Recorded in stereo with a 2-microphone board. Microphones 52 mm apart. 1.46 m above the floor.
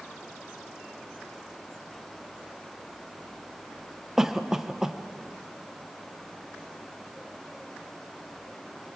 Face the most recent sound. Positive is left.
turn(degrees=-10)  # may be behind; listen again after turning